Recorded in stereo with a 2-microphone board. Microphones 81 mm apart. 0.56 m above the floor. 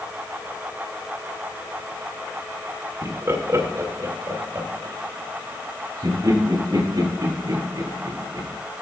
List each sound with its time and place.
3.0 s laughter: 30° right (ahead or behind), 1.8 m; by 8.5 s 55° right (ahead or behind), 5.5 m